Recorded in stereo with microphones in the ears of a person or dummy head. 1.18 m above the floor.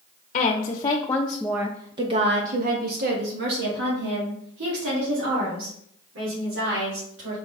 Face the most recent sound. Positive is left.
turn(degrees=-75)  # may be behind; listen again after turning